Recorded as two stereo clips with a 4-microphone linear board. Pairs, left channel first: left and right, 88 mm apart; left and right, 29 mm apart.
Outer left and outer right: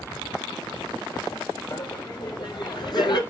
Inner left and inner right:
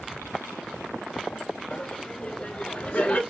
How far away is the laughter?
About 3 m.